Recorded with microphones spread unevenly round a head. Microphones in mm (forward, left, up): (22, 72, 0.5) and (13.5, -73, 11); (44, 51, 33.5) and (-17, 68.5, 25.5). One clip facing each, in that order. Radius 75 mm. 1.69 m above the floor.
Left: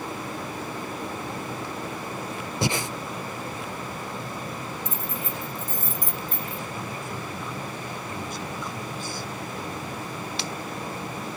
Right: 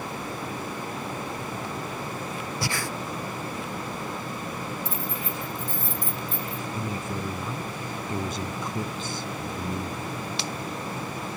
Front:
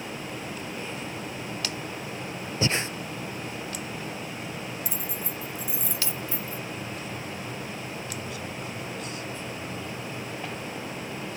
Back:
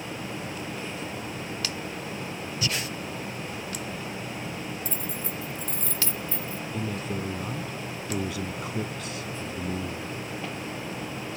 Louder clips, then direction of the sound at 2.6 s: Left 6 dB, front 5 dB; 20° left.